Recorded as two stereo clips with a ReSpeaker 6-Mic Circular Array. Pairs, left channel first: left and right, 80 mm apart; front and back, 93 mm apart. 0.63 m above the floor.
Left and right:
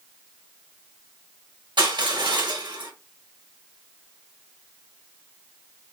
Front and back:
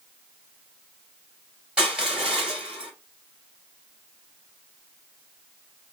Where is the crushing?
95° right, 2.5 m.